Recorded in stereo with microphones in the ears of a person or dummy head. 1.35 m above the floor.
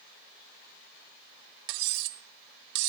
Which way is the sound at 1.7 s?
60° right (ahead or behind).